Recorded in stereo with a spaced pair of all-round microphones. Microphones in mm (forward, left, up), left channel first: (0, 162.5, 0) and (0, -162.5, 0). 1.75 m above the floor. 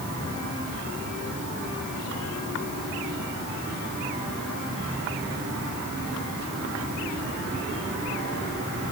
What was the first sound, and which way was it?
Only background noise.